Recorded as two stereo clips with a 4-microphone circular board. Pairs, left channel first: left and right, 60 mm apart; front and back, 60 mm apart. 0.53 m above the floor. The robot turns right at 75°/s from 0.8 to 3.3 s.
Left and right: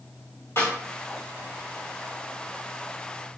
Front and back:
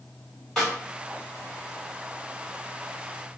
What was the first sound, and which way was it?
A snare drum, 80° left.